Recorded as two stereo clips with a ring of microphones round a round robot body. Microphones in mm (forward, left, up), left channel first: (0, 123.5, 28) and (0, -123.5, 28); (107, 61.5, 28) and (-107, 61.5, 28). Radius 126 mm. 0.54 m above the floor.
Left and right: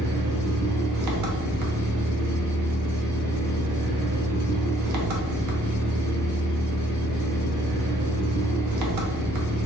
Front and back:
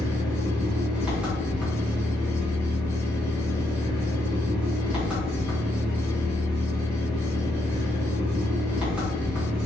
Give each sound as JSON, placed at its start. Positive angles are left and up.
{"t": 0.0, "sound": "an engine running", "azimuth_deg": -95, "distance_m": 0.9}